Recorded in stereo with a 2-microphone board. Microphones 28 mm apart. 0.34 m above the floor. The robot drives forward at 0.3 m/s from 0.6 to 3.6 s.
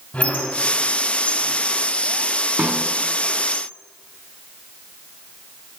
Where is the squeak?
55° left (ahead or behind), 1.2 m.